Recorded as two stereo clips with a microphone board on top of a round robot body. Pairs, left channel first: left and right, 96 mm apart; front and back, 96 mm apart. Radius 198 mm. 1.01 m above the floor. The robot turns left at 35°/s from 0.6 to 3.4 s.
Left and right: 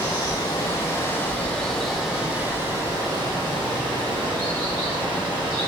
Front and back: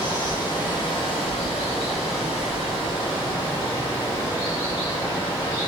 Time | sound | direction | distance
0.0 | running water | 45° left | 2.5 m